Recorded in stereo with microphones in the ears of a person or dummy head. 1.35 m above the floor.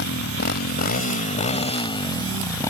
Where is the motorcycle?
60° left (ahead or behind); by 2.7 s 10° left (ahead or behind).